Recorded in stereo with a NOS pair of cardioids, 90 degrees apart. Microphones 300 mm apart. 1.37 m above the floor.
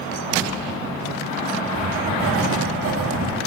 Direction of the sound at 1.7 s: 50° right.